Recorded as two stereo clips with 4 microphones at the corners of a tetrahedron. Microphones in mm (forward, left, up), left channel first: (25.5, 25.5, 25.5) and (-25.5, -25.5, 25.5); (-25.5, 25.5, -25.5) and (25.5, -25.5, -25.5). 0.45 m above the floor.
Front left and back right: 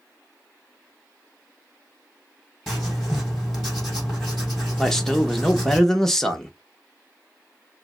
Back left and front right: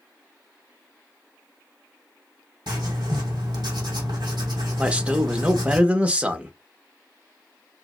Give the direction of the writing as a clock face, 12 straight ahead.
1 o'clock.